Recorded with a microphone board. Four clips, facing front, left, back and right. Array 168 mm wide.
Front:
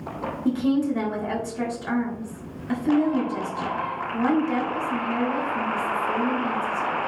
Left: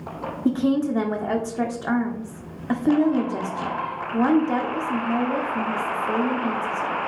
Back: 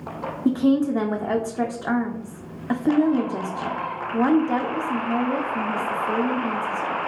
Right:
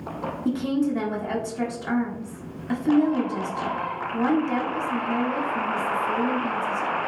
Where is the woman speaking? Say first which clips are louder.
Left 3 dB, back 3 dB; 140° left, 1.5 m.